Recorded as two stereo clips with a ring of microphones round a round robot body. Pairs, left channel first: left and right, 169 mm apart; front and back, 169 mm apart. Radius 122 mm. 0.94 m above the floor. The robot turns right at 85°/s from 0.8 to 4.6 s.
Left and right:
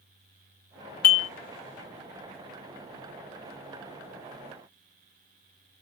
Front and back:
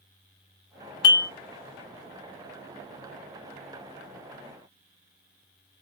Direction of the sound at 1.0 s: 65° left.